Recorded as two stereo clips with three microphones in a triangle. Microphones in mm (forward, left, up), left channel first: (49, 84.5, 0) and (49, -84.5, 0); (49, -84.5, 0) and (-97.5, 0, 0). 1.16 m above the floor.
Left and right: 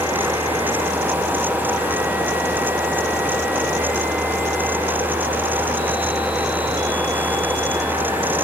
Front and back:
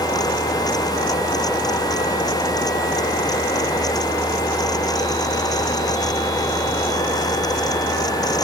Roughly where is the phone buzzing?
I don't hear a phone buzzing.